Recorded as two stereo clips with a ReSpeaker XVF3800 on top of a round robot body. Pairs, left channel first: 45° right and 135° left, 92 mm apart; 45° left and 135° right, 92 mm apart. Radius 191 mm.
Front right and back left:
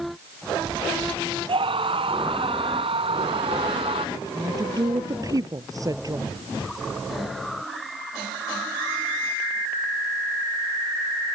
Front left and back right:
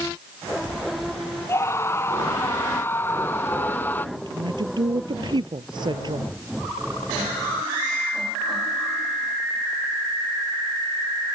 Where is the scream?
110° left; by 4.0 s 115° left.